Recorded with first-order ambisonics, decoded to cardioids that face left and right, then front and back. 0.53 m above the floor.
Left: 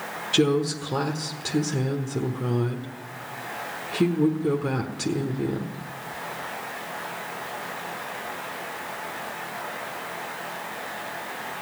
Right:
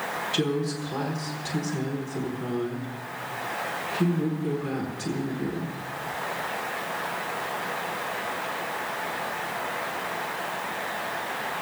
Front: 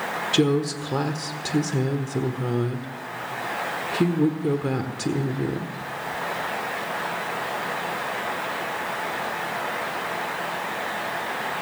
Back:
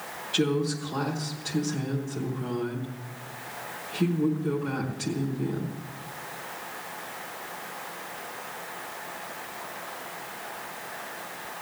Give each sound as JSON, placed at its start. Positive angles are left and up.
{"t": 0.3, "sound": "a woman speaking", "azimuth_deg": 35, "distance_m": 1.1}